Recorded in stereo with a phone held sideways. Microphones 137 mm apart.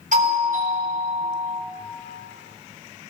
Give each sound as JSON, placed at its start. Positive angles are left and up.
{"t": 0.1, "sound": "a doorbell", "side_deg": -75, "distance_m": 6.5}